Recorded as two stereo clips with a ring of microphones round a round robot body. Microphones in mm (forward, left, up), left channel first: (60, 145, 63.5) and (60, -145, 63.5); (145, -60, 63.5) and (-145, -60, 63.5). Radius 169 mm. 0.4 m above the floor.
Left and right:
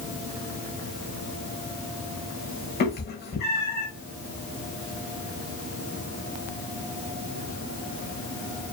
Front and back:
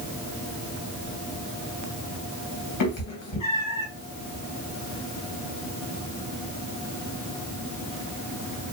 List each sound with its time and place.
2.8 s a cat meowing: 35° left, 1.1 m